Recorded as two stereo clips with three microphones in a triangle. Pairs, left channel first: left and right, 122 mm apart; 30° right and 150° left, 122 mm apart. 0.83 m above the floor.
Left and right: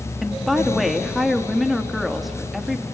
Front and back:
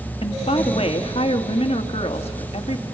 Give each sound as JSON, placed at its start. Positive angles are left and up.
{"t": 0.2, "sound": "a woman speaking", "azimuth_deg": 0, "distance_m": 1.6}